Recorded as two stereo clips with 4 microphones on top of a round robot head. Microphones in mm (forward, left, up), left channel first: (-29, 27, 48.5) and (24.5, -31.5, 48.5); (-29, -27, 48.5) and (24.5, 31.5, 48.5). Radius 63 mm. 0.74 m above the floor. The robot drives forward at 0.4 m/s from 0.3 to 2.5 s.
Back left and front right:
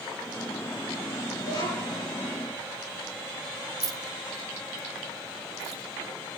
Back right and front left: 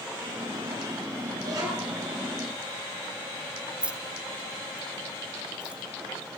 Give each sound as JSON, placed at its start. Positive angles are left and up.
{"t": 1.4, "sound": "a child speaking", "azimuth_deg": 95, "distance_m": 7.5}
{"t": 3.8, "sound": "keys jangling", "azimuth_deg": -25, "distance_m": 0.6}